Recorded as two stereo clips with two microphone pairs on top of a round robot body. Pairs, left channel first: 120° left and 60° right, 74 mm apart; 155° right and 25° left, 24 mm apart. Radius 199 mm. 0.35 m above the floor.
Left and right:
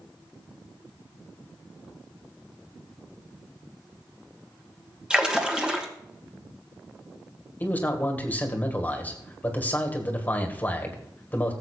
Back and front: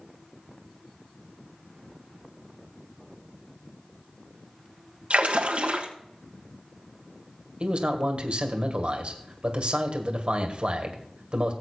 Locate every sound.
5.1 s a splash: 20° left, 1.9 m
7.6 s a man speaking: 55° left, 2 m